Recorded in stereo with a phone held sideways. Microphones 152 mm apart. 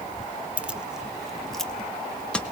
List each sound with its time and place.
0.6 s keys jangling: 10° right (ahead or behind), 0.8 m; by 2.4 s 5° left (ahead or behind), 1.6 m